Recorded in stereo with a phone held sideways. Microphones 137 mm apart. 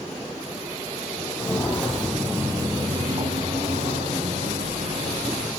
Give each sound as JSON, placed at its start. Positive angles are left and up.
{"t": 1.4, "sound": "footsteps", "side_deg": 25, "distance_m": 1.4}